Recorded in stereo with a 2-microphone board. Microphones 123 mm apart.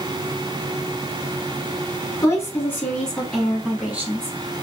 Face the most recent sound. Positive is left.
turn(degrees=-20)  # may be behind; listen again after turning